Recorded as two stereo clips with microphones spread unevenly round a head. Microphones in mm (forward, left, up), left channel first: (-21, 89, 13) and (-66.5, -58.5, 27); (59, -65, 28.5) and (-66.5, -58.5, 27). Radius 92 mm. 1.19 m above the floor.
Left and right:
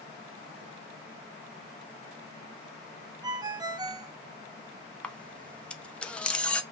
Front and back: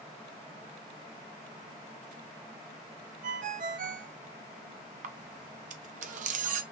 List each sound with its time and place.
3.2 s a ringtone: 175° right, 0.6 m
5.0 s a camera shutter: 155° left, 0.6 m